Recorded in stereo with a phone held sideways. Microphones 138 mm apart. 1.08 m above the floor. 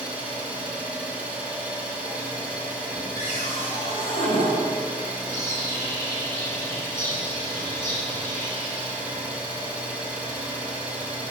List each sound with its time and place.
0.0 s an engine running: 10° right (ahead or behind), 1.8 m
3.2 s a cupboard door: 50° left (ahead or behind), 4 m
5.3 s a bird: 20° left (ahead or behind), 4 m